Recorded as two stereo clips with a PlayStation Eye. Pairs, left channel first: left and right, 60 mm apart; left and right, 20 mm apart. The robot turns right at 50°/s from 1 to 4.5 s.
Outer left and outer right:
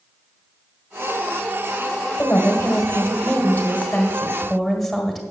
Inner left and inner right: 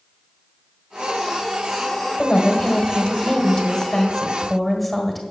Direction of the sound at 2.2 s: 70° left.